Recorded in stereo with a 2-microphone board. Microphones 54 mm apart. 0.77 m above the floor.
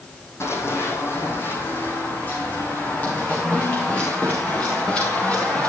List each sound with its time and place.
0.4 s running footsteps: 55° left (ahead or behind), 2.5 m; by 5.7 s 20° left (ahead or behind), 4.5 m